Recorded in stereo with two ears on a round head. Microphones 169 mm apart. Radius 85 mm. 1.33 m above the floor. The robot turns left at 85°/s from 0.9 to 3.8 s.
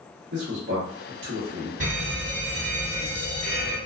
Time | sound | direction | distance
0.3 | a man speaking | 65° right (ahead or behind) | 1.0 m
1.8 | a fire alarm | 115° right | 1.8 m